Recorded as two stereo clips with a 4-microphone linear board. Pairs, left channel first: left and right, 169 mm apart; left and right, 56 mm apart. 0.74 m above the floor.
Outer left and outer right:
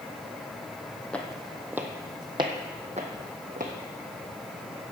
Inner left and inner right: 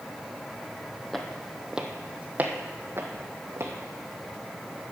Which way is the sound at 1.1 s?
5° left (ahead or behind).